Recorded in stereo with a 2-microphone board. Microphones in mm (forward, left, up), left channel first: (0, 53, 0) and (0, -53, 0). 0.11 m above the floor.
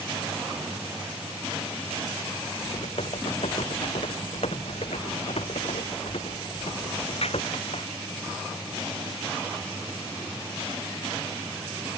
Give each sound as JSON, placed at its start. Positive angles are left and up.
{"t": 2.6, "sound": "typing on a keyboard", "side_deg": 70}